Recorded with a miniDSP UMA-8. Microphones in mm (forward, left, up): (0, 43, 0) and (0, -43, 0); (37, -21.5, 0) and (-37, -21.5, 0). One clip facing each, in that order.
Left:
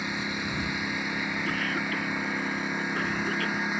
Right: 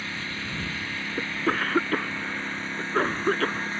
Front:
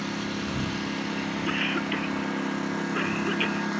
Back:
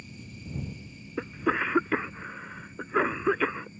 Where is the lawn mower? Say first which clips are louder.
Left 3 dB, front 15 dB; 15° left.